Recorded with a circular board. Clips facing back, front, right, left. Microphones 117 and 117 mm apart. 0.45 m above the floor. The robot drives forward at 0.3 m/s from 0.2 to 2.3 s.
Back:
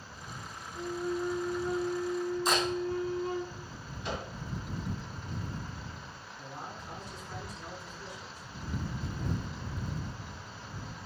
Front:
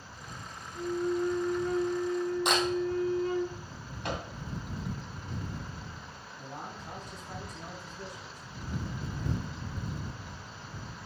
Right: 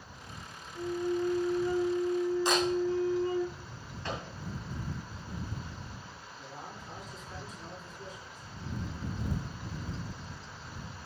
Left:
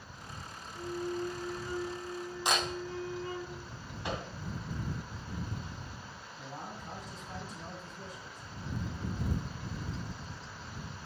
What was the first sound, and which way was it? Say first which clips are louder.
A flute: front 4 dB, right 5 dB; 80° right.